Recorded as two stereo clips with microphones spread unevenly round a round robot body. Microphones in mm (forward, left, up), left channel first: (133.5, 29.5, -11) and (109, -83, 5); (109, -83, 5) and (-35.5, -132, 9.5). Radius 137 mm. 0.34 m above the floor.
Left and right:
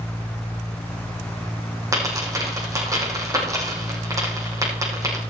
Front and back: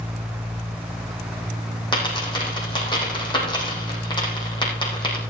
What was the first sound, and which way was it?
A dropped coin, 40° right.